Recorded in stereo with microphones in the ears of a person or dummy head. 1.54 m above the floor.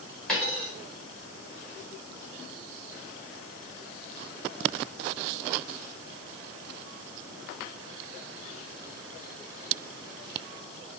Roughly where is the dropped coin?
Centre.